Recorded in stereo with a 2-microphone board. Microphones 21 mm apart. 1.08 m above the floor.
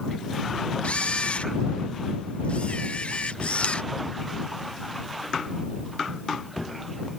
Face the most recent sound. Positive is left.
turn(degrees=80)